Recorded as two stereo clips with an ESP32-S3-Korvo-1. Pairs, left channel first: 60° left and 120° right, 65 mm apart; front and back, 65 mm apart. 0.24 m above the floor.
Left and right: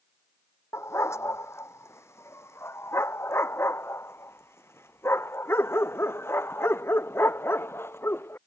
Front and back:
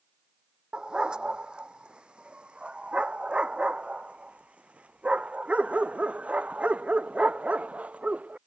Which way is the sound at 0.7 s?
100° left.